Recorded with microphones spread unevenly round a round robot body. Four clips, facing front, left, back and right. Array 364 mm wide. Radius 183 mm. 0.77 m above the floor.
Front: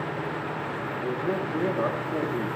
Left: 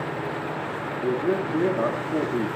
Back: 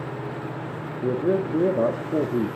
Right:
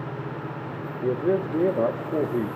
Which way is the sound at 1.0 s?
165° right.